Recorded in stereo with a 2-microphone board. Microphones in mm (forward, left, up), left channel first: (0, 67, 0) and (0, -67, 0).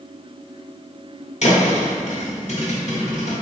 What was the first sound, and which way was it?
A thud, 55° left (ahead or behind).